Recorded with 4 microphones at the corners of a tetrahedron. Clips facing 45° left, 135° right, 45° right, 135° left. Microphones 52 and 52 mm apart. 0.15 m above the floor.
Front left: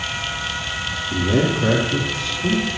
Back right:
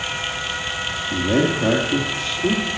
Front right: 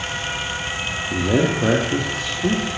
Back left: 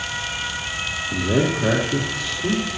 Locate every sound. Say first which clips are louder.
1.1 s a man speaking: even, front right 2 dB; 65° right, 3 m; by 2.7 s 85° right, 3.5 m